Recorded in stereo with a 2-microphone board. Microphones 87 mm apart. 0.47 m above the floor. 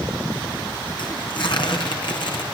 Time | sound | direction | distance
1.0 | tearing paper | 60° left (ahead or behind) | 5 m